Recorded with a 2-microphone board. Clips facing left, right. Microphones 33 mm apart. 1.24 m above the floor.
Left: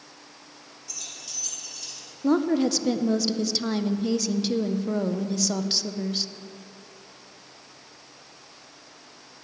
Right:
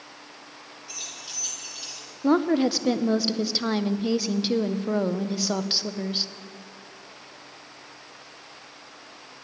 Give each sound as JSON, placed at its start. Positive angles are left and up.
{"t": 0.9, "sound": "keys jangling", "side_deg": -35, "distance_m": 2.5}
{"t": 2.2, "sound": "a woman speaking", "side_deg": -20, "distance_m": 0.5}